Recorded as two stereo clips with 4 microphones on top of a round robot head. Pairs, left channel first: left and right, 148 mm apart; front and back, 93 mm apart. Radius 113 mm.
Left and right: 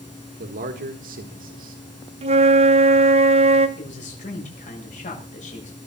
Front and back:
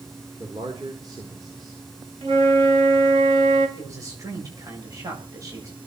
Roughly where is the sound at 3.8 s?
Behind left.